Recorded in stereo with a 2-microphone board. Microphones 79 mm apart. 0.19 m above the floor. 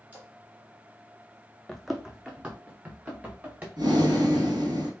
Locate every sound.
0.1 s a splash: 25° right (ahead or behind), 1.7 m
1.7 s running footsteps: 5° left (ahead or behind), 0.5 m; by 3.7 s 25° right (ahead or behind), 1.6 m
3.8 s breathing: 70° right (ahead or behind), 1.8 m